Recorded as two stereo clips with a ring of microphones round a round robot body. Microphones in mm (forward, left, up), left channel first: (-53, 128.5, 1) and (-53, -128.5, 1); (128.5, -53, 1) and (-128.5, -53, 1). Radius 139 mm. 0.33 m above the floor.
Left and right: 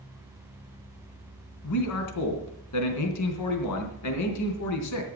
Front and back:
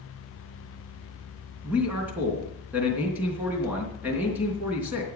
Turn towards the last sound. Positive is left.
turn(degrees=95)